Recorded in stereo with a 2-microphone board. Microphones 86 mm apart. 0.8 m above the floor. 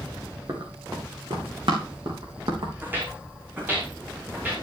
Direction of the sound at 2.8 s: 20° right (ahead or behind).